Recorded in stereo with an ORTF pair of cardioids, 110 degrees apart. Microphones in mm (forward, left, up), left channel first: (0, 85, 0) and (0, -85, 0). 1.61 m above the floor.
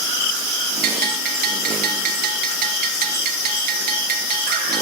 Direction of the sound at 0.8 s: 70° right.